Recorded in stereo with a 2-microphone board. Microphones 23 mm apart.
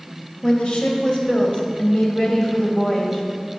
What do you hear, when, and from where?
0.4 s a woman speaking: 50° left (ahead or behind), 3 m; by 3.2 s 25° left (ahead or behind), 3.5 m